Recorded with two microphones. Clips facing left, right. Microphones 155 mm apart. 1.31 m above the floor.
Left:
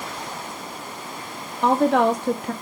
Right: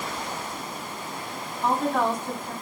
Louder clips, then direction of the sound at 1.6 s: Left 6 dB; 75° left (ahead or behind).